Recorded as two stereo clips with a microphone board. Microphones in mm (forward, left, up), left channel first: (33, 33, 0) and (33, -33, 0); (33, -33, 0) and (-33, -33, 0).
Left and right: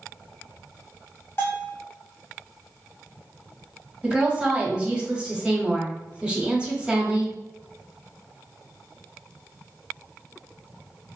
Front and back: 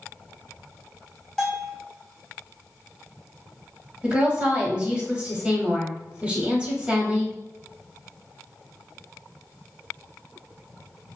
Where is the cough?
I don't hear a cough.